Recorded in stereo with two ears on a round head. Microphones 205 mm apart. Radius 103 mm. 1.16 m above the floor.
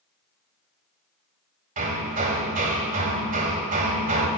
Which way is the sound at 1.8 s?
40° right (ahead or behind).